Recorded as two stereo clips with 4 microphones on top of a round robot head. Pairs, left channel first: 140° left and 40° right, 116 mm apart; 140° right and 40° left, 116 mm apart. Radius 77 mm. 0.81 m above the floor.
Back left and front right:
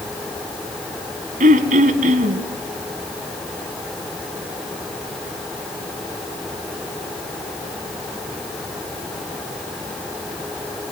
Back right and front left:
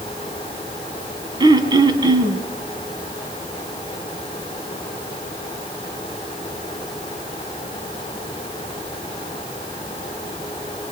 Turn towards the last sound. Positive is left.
turn(degrees=-15)